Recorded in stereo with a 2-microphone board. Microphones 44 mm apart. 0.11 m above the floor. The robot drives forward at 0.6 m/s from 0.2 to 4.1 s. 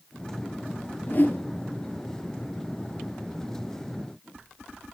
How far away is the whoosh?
About 1.7 m.